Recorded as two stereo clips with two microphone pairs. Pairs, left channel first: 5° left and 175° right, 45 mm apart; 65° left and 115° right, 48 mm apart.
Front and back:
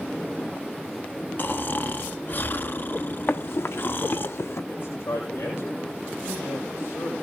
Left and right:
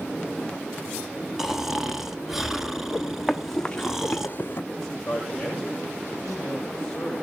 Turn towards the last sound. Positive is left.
turn(degrees=-15)